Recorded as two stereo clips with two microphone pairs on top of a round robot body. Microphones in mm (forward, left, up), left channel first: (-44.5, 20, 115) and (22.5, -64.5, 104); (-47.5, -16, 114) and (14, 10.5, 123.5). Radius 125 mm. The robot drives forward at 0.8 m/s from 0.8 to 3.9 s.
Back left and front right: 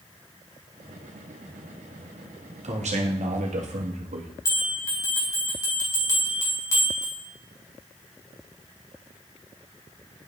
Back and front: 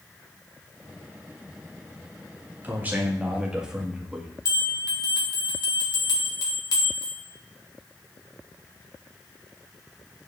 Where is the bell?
170° right, 3 m.